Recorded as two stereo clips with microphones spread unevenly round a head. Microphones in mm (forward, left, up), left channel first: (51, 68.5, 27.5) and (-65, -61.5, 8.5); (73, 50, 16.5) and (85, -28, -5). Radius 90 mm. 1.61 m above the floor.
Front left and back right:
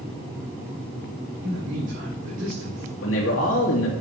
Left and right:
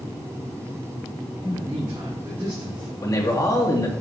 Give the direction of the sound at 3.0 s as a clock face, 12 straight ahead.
10 o'clock.